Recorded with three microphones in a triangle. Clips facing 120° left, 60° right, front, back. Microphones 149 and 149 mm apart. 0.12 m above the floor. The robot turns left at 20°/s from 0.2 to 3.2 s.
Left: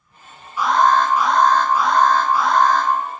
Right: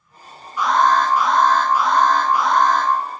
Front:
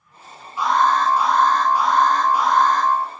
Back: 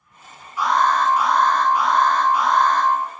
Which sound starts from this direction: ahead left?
An alarm, at 0.6 s.